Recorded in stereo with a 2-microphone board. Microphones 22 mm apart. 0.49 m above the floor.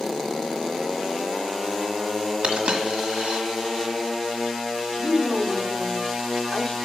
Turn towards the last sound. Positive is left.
turn(degrees=30)  # may be behind; listen again after turning